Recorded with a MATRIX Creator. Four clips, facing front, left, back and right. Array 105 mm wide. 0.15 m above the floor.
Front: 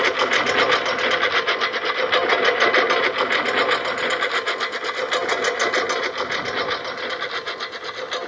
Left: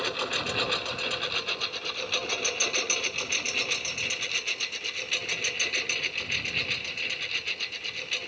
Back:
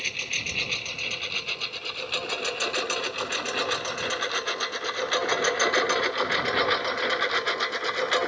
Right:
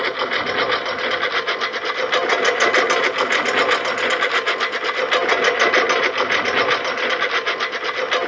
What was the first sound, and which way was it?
A lawn mower, 30° right.